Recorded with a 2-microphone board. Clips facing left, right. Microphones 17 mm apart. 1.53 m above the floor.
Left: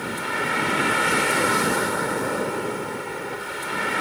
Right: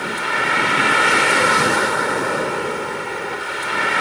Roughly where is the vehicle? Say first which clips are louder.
Right 6 dB; right.